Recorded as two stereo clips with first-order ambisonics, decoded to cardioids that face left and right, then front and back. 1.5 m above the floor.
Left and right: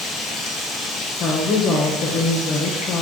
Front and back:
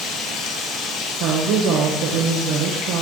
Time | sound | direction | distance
0.0 | running water | 35° left | 3.5 m
1.2 | a woman speaking | 150° left | 1.5 m